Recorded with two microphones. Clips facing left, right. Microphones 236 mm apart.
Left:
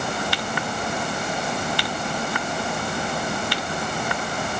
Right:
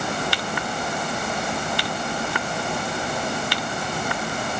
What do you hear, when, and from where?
Only background noise.